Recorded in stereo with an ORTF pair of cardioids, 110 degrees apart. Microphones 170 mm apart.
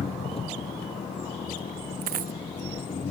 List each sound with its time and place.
0.0 s an engine running: 35° left
2.0 s a dropped coin: 55° right